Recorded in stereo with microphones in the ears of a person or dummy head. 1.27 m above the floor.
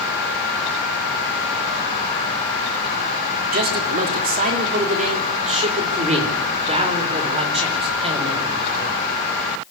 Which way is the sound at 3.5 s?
50° right (ahead or behind).